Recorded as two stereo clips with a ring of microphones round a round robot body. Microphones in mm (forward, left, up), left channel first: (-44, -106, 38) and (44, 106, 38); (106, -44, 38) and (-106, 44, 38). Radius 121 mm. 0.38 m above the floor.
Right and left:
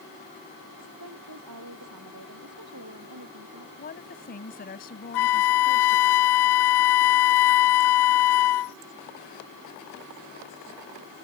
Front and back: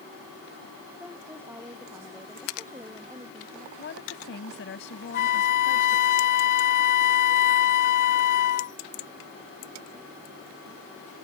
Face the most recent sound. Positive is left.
turn(degrees=-80)